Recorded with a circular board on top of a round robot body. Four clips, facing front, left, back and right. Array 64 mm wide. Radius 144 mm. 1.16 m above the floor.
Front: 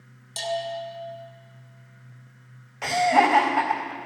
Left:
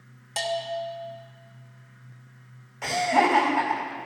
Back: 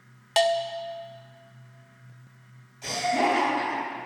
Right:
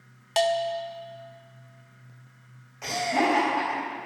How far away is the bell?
About 0.9 m.